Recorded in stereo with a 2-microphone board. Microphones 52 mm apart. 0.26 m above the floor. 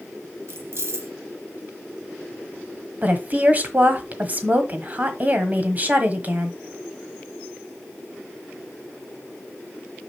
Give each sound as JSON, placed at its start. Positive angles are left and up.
{"t": 0.5, "sound": "keys jangling", "side_deg": -60, "distance_m": 1.6}
{"t": 3.0, "sound": "a woman speaking", "side_deg": -35, "distance_m": 1.5}